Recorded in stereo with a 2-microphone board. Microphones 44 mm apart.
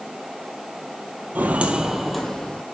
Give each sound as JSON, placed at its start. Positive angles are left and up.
{"t": 1.4, "sound": "footsteps", "side_deg": -40, "distance_m": 1.5}